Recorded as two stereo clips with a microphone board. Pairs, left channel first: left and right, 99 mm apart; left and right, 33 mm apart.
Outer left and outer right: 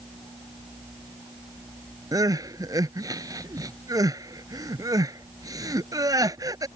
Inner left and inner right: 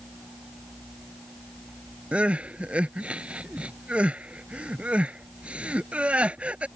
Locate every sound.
2.1 s crying: 40° right (ahead or behind)